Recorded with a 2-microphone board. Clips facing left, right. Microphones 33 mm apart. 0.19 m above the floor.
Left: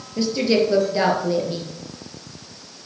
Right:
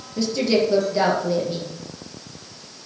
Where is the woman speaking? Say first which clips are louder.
Left 1 dB; 15° left (ahead or behind), 4.5 m.